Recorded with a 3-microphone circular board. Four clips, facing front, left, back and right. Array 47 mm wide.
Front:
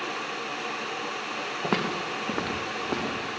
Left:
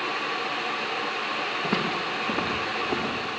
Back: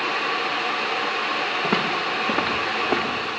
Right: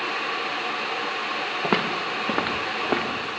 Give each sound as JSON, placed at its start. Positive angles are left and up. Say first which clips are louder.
{"t": 1.6, "sound": "footsteps", "louder": "right 5 dB, back 2 dB", "azimuth_deg": -90, "distance_m": 3.0}